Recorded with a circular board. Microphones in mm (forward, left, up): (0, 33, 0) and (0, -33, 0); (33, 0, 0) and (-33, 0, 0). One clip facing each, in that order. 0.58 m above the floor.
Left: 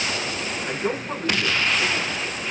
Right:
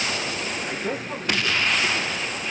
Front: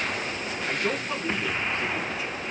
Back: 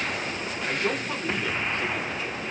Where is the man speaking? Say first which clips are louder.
Left 2 dB, even; 90° left, 7 m; by 2.5 s 80° left, 5.5 m.